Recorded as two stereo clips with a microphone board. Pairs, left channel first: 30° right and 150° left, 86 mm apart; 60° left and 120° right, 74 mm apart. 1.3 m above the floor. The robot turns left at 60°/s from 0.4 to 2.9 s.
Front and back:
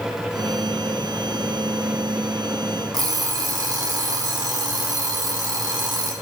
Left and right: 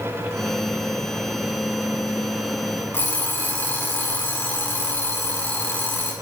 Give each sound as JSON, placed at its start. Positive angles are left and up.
{"t": 2.9, "sound": "an alarm clock", "azimuth_deg": 115, "distance_m": 1.8}